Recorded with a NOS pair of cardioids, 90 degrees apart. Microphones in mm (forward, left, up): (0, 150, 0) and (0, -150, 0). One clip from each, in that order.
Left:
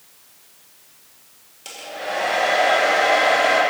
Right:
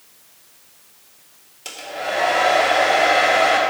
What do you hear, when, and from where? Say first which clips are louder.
1.6 s a hair dryer: right 3 dB; 20° right, 2.5 m